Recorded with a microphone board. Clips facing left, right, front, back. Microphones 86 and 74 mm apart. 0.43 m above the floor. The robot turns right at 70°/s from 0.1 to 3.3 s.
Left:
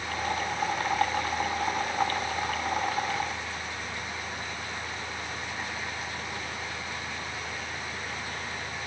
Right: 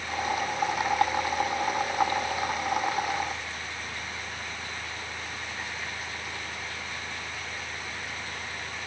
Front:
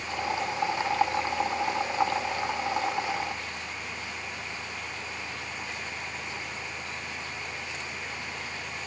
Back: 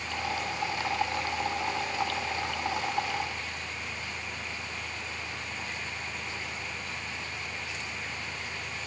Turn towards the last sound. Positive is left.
No sound to turn to.